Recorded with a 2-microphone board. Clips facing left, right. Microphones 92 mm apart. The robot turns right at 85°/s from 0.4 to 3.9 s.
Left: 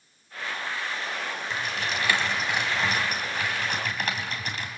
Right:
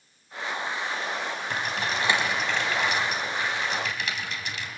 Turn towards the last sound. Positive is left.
turn(degrees=45)  # may be behind; listen again after turning